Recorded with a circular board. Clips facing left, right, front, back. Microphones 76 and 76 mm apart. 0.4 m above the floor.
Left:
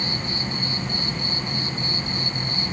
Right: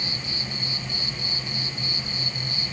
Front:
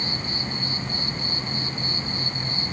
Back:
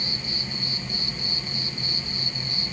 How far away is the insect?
About 0.7 m.